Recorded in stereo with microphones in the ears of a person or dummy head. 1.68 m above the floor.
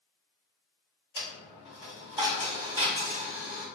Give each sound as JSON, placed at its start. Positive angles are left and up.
{"t": 1.1, "sound": "a dropped coin", "side_deg": -25, "distance_m": 1.8}